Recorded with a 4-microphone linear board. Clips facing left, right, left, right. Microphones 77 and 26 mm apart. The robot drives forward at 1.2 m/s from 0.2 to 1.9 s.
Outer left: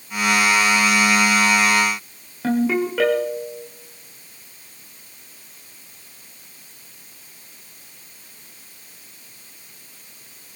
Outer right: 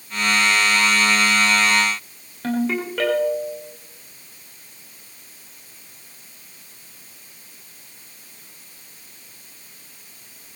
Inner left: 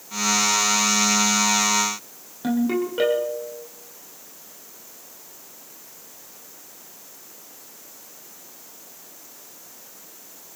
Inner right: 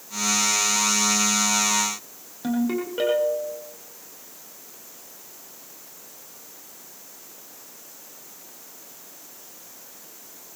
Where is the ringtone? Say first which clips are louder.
Outer left 3 dB, inner left 2 dB; 5° left (ahead or behind), 5.5 m.